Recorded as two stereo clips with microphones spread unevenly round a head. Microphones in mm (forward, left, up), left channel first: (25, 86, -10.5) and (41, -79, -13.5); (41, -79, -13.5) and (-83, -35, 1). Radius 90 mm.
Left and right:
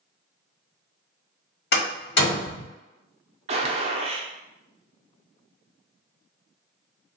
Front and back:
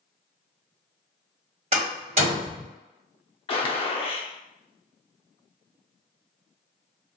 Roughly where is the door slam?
Behind left.